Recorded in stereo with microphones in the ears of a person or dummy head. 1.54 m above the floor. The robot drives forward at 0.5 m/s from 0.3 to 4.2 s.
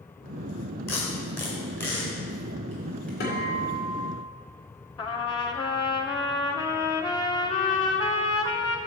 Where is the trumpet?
25° left (ahead or behind), 0.6 m.